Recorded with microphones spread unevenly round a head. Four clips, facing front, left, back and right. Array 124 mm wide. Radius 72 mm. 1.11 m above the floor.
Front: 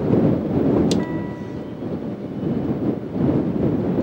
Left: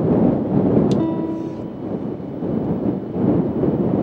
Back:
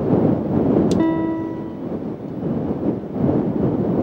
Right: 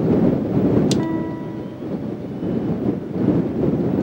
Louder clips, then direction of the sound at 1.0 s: Left 2 dB, back 8 dB; 155° left.